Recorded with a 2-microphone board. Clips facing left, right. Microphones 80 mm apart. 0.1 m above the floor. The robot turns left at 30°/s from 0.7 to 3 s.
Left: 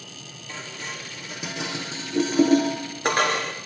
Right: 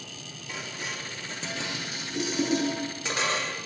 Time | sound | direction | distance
0.5 | dishes clattering | 10° right (ahead or behind) | 4 m